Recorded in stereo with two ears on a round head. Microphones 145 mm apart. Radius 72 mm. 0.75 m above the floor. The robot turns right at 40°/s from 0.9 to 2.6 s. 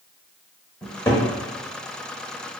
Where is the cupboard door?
10° left (ahead or behind), 0.8 m; by 1.3 s 20° left (ahead or behind), 0.8 m.